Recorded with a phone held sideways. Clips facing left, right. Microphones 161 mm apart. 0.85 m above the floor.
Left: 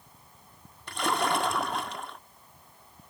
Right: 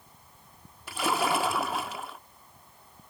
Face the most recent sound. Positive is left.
turn(degrees=-5)  # may be behind; listen again after turning